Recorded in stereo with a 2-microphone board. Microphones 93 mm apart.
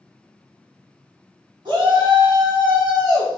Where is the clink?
I don't hear a clink.